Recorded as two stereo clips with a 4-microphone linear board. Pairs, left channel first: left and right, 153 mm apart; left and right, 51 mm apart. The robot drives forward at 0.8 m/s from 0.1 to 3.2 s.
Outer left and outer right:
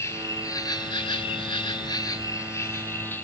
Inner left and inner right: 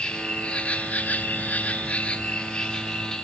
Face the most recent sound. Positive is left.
turn(degrees=15)  # may be behind; listen again after turning